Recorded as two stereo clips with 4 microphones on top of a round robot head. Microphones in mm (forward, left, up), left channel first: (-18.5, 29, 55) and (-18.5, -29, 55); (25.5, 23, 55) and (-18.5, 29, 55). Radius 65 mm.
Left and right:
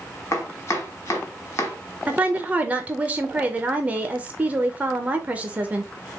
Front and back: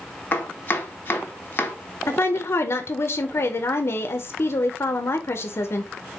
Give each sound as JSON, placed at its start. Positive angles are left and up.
{"t": 0.3, "sound": "chopping", "azimuth_deg": 40, "distance_m": 0.9}
{"t": 2.1, "sound": "a woman speaking", "azimuth_deg": -25, "distance_m": 0.6}